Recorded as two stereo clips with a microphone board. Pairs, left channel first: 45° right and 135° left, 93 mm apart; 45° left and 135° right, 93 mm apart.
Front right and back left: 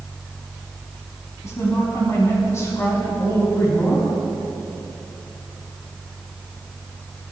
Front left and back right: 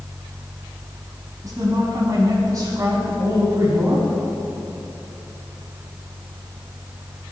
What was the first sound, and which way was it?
A woman speaking, 100° right.